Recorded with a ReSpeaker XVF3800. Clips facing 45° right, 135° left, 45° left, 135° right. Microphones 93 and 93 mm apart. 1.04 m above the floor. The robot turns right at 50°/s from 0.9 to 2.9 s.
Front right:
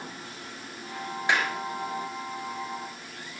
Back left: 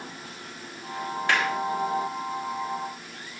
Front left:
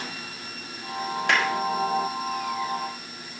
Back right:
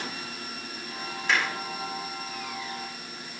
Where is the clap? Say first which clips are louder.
Back left 1 dB, front left 3 dB; 25° left, 5 m; by 1.5 s 35° left, 5 m.